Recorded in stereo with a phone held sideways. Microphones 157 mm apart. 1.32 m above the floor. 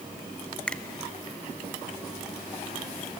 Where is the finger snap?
5° left (ahead or behind), 0.9 m.